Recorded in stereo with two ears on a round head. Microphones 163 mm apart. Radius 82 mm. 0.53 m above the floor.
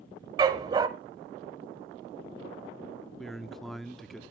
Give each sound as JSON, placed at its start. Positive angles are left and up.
{"t": 0.4, "sound": "a dog barking", "side_deg": -20, "distance_m": 0.6}
{"t": 3.2, "sound": "a man speaking", "side_deg": 0, "distance_m": 0.7}